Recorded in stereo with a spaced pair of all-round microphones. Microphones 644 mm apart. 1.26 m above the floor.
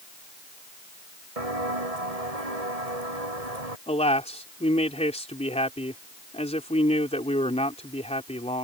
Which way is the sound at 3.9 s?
10° left (ahead or behind).